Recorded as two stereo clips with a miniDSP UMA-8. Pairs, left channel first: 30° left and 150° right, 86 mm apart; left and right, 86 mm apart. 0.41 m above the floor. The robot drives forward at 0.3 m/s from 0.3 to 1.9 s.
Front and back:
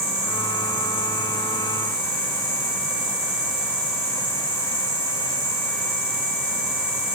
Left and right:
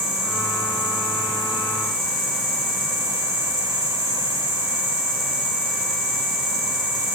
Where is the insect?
115° right, 1.3 m; by 7.2 s 135° right, 1.6 m.